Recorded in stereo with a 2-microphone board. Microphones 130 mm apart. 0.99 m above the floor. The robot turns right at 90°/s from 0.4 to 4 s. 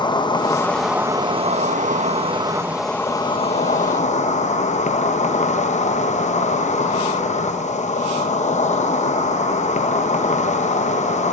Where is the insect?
140° left, 0.7 m; by 11.3 s 105° left, 0.7 m.